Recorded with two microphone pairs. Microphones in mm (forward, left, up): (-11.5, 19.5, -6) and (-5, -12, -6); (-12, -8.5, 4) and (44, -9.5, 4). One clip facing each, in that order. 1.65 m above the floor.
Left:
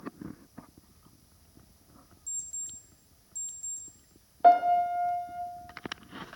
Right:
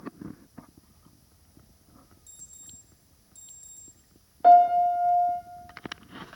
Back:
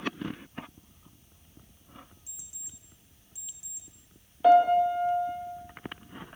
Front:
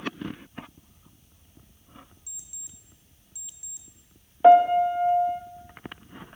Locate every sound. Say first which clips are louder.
2.3 s an alarm clock: left 13 dB, front 2 dB; 130° right, 2.5 m
4.4 s a piano: right 4 dB, front 4 dB; 25° left, 1.1 m